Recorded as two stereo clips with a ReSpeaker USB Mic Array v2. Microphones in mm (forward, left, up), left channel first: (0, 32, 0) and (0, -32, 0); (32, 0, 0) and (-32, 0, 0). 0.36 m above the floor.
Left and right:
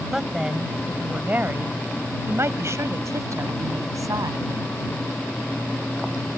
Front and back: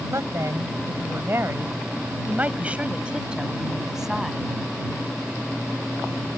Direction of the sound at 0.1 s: 175° right.